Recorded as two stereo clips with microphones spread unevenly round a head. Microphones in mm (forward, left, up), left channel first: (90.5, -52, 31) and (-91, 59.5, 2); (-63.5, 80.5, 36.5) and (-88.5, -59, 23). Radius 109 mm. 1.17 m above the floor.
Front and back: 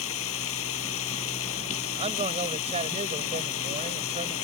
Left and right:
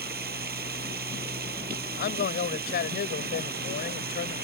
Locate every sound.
0.0 s running water: 60° right
2.0 s a man speaking: 85° left